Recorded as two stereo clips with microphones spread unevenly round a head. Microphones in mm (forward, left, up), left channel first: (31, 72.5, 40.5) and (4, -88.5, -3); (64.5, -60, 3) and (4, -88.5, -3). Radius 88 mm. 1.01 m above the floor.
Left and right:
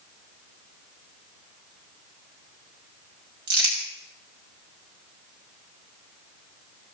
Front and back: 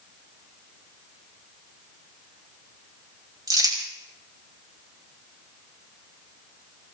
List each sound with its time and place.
3.5 s crumpling: 130° right, 6 m